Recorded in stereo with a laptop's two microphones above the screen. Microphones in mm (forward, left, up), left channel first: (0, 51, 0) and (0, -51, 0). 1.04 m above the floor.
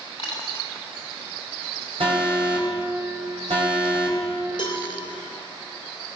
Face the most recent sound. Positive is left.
turn(degrees=50)  # may be behind; listen again after turning